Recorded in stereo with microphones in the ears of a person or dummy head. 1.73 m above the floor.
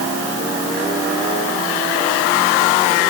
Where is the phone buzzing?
I don't hear a phone buzzing.